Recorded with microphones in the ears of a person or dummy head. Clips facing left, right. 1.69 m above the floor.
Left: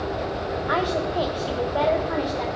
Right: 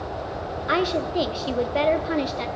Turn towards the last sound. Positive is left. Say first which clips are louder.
# right 2 dB
turn(degrees=-35)  # may be behind; listen again after turning